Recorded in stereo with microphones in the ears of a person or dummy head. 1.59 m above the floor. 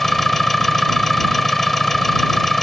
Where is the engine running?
10° left (ahead or behind).